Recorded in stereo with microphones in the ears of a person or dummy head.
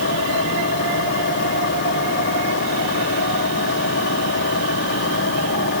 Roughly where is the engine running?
Left.